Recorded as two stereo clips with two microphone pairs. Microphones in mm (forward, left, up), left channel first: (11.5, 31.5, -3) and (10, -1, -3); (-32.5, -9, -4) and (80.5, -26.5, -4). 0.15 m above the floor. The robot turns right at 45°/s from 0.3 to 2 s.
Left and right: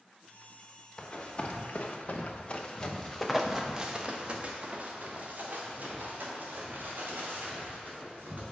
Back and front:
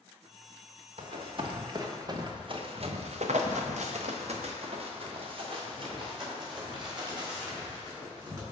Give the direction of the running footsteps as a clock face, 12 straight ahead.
11 o'clock.